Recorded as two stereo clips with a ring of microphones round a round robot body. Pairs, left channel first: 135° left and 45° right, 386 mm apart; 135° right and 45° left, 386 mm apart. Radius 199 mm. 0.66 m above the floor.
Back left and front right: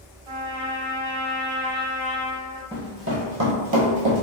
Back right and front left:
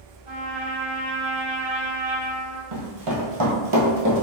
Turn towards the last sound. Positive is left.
turn(degrees=-20)